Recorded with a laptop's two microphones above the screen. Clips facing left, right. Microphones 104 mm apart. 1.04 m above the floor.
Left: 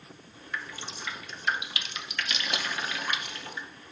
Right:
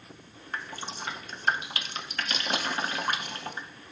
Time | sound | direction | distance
0.5 | dripping | 40° right (ahead or behind) | 0.6 m